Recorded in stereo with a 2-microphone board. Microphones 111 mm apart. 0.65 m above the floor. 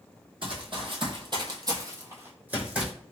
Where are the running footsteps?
50° right (ahead or behind), 1.2 m; by 2.9 s 10° right (ahead or behind), 1.4 m.